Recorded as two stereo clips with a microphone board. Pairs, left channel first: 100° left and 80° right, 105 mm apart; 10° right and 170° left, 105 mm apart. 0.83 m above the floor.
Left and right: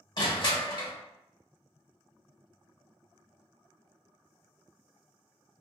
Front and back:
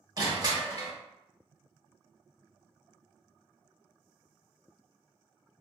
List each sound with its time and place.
0.2 s crushing: 130° left, 0.8 m